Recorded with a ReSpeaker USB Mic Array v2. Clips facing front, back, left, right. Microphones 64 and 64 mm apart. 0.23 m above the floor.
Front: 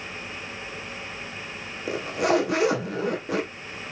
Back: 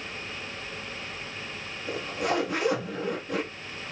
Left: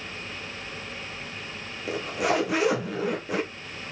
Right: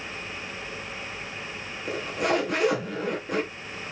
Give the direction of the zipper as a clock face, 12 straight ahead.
12 o'clock.